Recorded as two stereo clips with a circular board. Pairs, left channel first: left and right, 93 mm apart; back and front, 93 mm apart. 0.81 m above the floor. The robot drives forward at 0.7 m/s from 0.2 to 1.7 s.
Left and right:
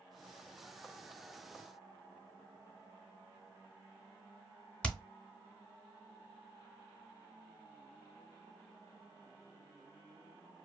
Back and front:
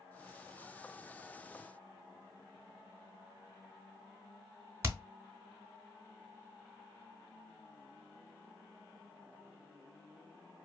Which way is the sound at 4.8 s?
20° left.